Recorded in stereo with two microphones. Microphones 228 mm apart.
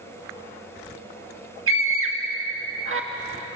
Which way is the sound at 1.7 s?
70° right (ahead or behind).